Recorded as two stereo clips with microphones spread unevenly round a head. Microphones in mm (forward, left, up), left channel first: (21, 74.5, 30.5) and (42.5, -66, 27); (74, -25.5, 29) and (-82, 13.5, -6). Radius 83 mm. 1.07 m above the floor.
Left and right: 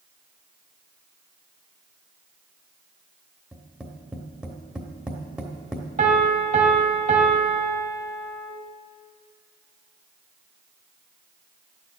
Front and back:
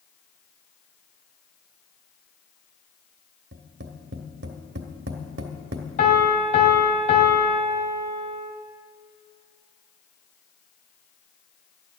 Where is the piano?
45° right, 1.9 m.